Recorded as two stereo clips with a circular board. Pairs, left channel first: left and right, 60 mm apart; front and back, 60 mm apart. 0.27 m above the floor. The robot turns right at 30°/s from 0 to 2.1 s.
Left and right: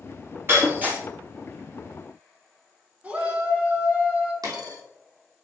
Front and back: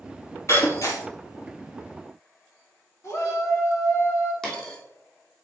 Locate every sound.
0.5 s breaking glass: 40° right, 2.5 m; by 1.0 s 20° right, 2.5 m
3.0 s a shout: 25° right, 2.5 m
4.4 s a dropped coin: 80° right, 2.5 m